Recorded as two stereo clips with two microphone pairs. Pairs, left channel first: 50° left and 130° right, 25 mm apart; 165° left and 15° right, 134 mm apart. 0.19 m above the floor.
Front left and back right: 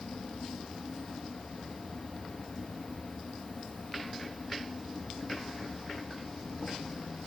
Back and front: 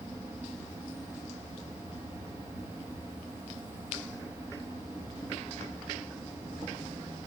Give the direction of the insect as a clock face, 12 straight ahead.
10 o'clock.